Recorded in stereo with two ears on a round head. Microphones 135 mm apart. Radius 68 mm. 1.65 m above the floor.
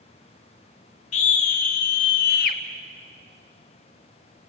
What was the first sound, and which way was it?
A scream, 45° left (ahead or behind).